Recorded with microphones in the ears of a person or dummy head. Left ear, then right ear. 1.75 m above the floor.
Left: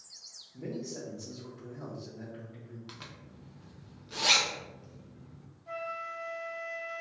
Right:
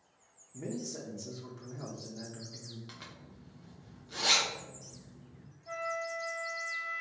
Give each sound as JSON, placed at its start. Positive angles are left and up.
{"t": 0.5, "sound": "a man speaking", "side_deg": -65, "distance_m": 0.8}
{"t": 2.9, "sound": "a zipper", "side_deg": 10, "distance_m": 0.6}
{"t": 5.7, "sound": "a flute", "side_deg": -15, "distance_m": 1.0}